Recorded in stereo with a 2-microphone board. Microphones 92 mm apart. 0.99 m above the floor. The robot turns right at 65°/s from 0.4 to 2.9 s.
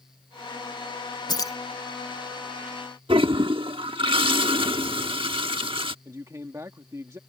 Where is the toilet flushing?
70° right (ahead or behind).